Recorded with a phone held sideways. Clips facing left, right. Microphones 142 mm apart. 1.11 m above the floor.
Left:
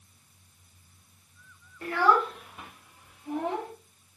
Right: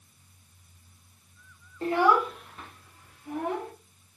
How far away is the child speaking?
About 0.8 m.